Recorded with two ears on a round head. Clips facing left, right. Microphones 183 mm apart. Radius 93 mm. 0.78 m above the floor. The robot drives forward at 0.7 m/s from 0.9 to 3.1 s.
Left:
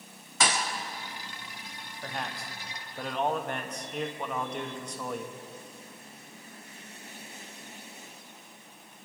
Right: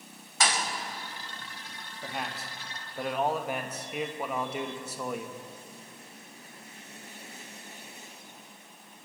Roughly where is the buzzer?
No buzzer in this recording.